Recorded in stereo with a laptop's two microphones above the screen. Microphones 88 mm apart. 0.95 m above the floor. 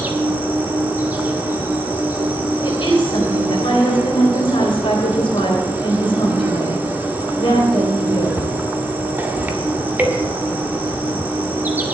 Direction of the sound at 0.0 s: 20° right (ahead or behind).